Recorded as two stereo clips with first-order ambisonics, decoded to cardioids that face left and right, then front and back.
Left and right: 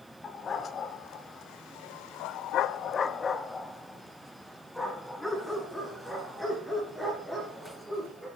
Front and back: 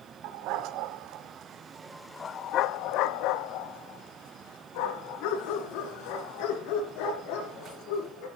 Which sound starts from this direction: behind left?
A dog barking, at 0.2 s.